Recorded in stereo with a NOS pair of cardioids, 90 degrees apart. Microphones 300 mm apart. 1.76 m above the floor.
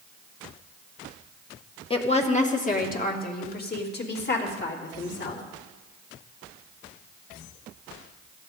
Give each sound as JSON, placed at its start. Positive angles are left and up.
{"t": 1.9, "sound": "a woman speaking", "azimuth_deg": 20, "distance_m": 1.9}